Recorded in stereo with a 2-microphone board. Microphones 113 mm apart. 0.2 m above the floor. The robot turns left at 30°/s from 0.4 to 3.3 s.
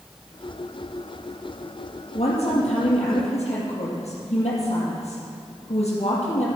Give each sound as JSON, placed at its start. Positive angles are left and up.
{"t": 2.1, "sound": "a woman speaking", "azimuth_deg": 110, "distance_m": 5.5}